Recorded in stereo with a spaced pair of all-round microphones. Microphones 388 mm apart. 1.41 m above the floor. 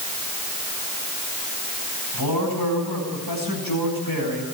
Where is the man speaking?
65° left (ahead or behind), 9.5 m.